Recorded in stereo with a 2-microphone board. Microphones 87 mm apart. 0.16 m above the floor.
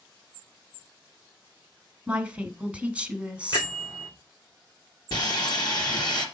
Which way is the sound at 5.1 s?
55° left (ahead or behind).